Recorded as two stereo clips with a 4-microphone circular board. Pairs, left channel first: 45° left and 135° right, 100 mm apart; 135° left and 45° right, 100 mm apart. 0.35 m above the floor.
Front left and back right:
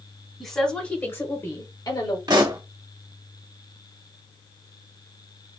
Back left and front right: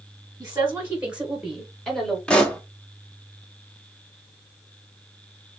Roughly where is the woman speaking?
Ahead right.